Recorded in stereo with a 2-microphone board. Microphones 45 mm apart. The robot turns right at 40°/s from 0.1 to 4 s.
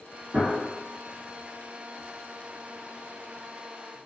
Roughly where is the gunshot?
Right.